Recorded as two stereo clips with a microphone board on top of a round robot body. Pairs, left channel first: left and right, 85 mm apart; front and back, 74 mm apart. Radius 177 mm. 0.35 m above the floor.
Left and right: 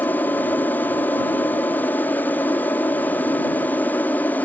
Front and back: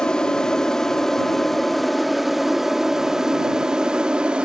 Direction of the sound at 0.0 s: 65° left.